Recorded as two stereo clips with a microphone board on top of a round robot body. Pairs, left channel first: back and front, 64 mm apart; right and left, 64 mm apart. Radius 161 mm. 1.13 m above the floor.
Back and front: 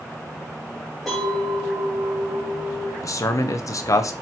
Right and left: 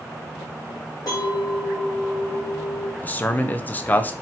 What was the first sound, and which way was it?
A clink, 95° right.